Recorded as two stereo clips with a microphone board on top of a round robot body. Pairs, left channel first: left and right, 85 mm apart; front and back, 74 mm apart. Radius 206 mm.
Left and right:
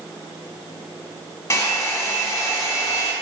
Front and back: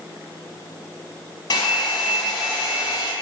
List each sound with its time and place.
1.5 s a hair dryer: 30° left, 0.7 m